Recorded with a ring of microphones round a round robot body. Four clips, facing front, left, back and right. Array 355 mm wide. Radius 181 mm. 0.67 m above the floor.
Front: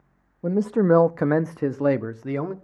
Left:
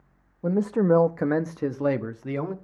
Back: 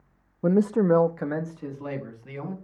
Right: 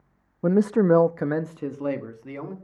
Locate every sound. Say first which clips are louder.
0.4 s a man speaking: right 3 dB, front 1 dB; 120° right, 0.6 m; by 2.5 s 25° left, 1.4 m